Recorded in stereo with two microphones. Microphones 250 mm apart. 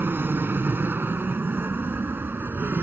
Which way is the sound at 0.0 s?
10° right (ahead or behind).